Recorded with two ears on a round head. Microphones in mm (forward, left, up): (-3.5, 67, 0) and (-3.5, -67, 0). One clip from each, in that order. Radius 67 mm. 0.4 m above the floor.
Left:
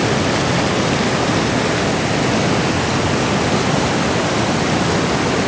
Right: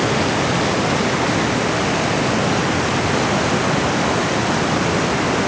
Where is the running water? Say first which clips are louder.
Left 1 dB; 35° right (ahead or behind).